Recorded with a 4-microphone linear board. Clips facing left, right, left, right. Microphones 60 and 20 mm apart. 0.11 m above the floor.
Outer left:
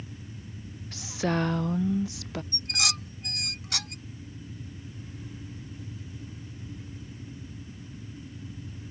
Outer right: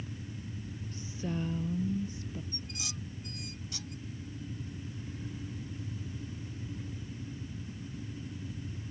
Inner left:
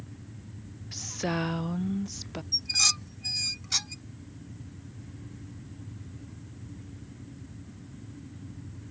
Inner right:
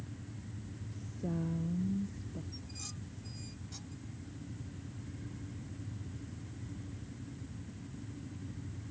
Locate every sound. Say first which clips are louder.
0.9 s a woman speaking: outer left 9 dB, inner left 9 dB; 85° left
2.5 s dishes clattering: outer left 11 dB, inner left 22 dB; 75° left (ahead or behind)